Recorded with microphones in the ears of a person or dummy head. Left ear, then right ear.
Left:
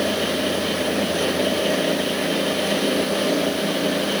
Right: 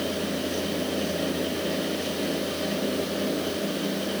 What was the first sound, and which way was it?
Only background noise.